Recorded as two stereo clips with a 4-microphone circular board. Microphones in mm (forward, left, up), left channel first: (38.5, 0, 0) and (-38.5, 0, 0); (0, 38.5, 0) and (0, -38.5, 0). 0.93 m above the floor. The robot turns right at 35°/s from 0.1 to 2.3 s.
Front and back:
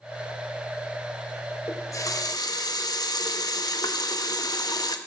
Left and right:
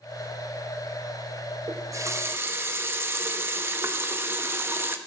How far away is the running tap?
About 0.7 m.